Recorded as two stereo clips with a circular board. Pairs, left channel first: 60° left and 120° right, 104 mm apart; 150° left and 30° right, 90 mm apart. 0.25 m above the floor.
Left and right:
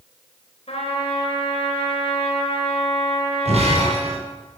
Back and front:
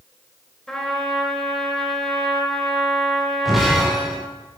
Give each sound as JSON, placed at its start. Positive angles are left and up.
{"t": 0.7, "sound": "a trumpet", "azimuth_deg": 65, "distance_m": 3.5}
{"t": 3.5, "sound": "breaking glass", "azimuth_deg": -120, "distance_m": 3.5}